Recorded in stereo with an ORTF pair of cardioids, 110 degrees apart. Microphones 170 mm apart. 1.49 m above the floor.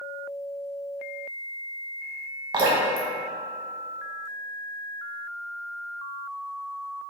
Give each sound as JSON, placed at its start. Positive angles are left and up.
{"t": 2.5, "sound": "dripping", "azimuth_deg": -30, "distance_m": 0.7}